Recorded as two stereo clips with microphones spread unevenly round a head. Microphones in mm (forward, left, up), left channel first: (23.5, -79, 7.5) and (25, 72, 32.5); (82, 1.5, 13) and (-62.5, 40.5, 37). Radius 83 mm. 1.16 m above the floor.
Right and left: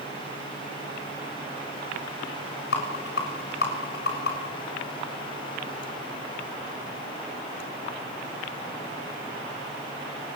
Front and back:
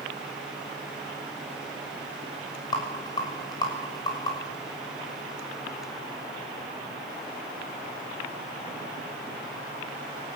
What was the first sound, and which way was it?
A rattle, 80° right.